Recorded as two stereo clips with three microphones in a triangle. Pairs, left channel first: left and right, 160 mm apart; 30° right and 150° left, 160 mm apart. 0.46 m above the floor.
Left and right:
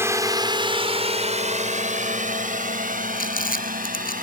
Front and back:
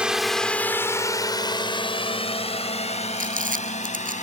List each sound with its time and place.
0.0 s a drone: 135° right; by 4.2 s 70° right
3.2 s crumpling: 120° left